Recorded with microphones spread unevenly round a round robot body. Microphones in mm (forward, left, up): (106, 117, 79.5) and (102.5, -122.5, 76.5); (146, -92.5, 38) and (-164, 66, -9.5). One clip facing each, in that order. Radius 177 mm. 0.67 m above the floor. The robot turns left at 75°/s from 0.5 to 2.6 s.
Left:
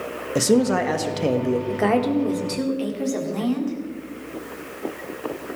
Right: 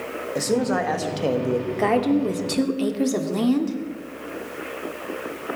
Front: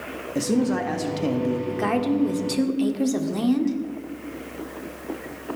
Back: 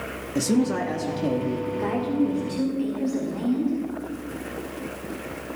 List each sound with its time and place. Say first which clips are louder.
0.3 s a man speaking: left 4 dB, even; 85° left, 1.2 m; by 1.6 s 5° left, 1.2 m
1.7 s a woman speaking: right 2 dB, front 3 dB; 15° left, 1.6 m; by 3.8 s 50° right, 1.6 m